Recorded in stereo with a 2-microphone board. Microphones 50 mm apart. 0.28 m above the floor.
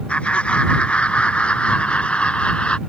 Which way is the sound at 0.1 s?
20° left (ahead or behind).